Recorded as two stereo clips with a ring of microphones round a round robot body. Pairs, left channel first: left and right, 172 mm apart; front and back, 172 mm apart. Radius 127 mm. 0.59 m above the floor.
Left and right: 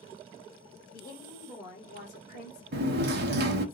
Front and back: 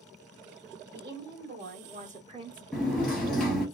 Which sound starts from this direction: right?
A sliding door, at 2.7 s.